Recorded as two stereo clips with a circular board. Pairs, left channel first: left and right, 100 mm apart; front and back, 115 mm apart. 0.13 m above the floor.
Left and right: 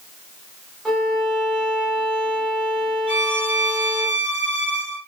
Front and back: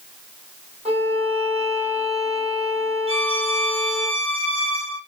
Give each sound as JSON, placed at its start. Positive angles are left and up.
{"t": 0.8, "sound": "a violin", "azimuth_deg": 180, "distance_m": 6.0}
{"t": 3.1, "sound": "a violin", "azimuth_deg": -165, "distance_m": 4.0}